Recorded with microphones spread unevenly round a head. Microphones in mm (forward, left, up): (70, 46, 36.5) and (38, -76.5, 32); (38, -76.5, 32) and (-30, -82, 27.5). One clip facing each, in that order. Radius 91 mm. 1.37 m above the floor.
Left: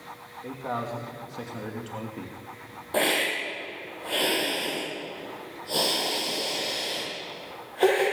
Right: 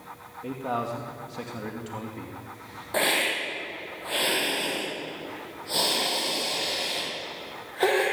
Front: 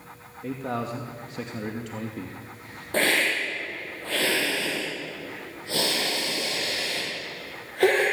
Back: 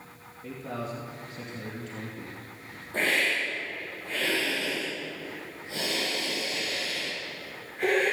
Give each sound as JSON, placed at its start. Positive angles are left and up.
{"t": 0.4, "sound": "a man speaking", "azimuth_deg": -30, "distance_m": 2.5}
{"t": 2.9, "sound": "a hiss", "azimuth_deg": 0, "distance_m": 9.5}